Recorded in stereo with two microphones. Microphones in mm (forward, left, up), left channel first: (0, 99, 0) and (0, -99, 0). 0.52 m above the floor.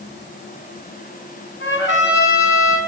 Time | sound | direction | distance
1.6 | a trumpet | 85° left | 2.5 m